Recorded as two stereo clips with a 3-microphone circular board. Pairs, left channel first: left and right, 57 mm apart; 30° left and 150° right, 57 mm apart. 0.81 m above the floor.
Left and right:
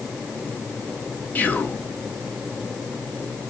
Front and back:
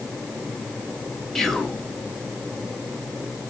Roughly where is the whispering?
Left.